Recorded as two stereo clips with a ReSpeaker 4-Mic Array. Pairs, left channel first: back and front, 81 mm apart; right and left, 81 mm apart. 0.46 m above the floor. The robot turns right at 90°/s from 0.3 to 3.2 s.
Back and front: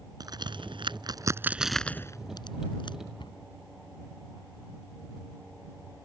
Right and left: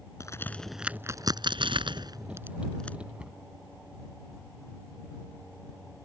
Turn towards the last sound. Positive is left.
turn(degrees=165)